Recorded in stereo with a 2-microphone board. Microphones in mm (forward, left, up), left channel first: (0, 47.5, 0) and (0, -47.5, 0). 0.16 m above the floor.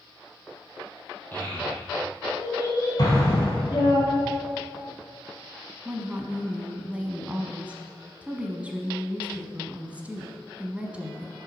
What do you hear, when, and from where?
1.3 s a child speaking: 20° left (ahead or behind), 3 m; by 4.0 s 50° left (ahead or behind), 3.5 m
3.0 s an explosion: 40° left (ahead or behind), 2.5 m
5.8 s a woman speaking: 15° right (ahead or behind), 1.0 m